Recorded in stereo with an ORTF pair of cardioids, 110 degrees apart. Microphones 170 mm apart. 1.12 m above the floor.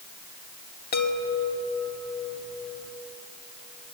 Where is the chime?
65° left, 2 m.